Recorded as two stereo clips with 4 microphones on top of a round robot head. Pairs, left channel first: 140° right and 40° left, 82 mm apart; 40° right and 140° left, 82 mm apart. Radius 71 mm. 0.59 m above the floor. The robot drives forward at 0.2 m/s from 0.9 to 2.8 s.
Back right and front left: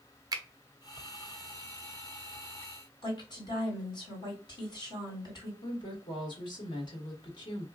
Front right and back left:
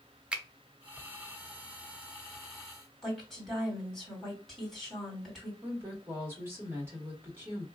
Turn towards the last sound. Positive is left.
turn(degrees=-155)